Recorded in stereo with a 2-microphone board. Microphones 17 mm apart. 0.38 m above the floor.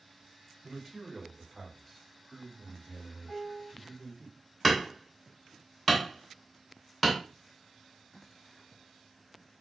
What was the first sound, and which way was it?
A man speaking, 5° right (ahead or behind).